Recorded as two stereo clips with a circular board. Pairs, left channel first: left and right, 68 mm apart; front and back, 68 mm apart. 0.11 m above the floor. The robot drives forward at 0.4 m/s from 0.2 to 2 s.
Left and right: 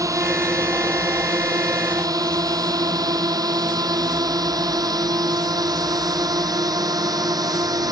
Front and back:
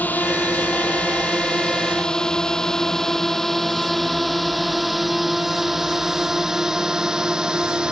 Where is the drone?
65° right; by 7.9 s 105° right.